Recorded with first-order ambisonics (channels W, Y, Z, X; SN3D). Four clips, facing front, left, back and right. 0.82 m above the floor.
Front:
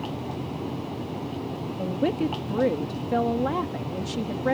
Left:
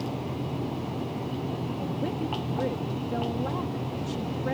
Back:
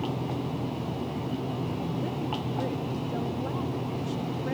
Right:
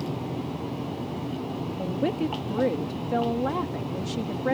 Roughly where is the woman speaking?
Ahead right.